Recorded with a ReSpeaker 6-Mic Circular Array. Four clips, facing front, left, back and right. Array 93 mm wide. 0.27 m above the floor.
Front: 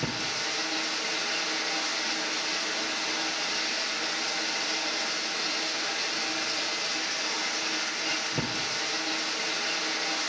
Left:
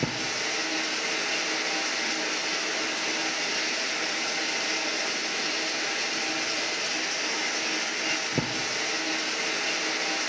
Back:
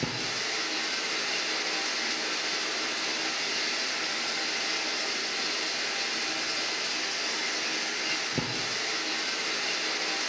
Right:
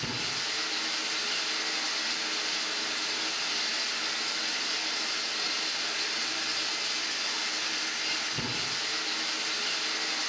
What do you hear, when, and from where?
0.0 s running water: 100° left, 3 m